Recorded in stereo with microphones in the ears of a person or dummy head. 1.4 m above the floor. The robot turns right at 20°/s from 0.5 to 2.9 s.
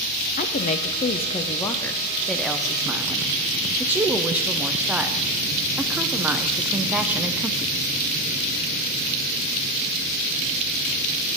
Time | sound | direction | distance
0.4 | a woman speaking | 135° left | 0.7 m